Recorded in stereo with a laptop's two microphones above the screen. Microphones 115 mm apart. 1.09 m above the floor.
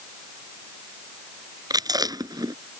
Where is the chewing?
35° right (ahead or behind).